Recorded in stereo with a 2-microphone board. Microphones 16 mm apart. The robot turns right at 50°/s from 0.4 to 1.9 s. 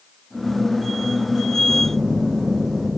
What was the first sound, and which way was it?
A phone buzzing, 50° left (ahead or behind).